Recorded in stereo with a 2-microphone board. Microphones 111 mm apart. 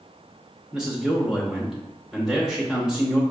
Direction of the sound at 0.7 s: 5° right (ahead or behind).